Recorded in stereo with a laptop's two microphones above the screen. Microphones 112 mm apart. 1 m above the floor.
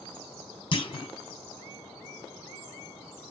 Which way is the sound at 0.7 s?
45° left (ahead or behind).